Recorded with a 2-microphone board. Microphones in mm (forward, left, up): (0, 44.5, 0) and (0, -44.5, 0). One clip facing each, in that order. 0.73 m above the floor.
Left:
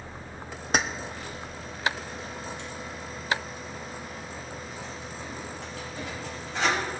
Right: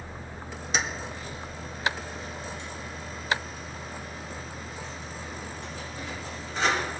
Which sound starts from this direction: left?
Keys jangling, at 0.7 s.